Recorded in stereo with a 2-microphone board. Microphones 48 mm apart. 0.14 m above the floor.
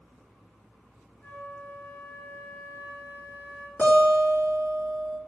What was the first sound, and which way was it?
A flute, 40° left (ahead or behind).